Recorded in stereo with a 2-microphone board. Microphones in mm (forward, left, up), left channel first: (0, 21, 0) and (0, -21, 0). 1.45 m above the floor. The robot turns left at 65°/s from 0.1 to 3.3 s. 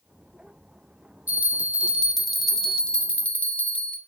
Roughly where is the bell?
Right.